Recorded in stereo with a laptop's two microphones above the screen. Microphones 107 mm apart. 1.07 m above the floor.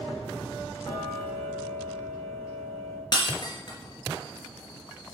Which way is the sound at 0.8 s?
30° left (ahead or behind).